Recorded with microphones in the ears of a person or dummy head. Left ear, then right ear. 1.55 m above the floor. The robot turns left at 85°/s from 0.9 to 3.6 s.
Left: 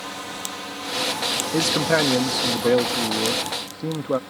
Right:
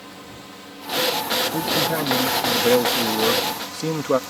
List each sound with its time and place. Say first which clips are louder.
0.0 s a drone: left 8 dB; 135° left; by 4.3 s 95° right
1.5 s a man speaking: left 2 dB; 80° left; by 4.2 s 95° right